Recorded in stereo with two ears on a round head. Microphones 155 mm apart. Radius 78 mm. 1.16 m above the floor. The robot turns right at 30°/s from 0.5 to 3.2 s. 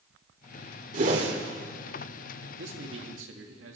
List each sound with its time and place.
0.9 s a whoosh: 50° right (ahead or behind), 2.0 m; by 1.4 s 35° right (ahead or behind), 2.0 m
2.6 s a man speaking: 75° right (ahead or behind), 2.0 m; by 3.8 s 80° right, 2.0 m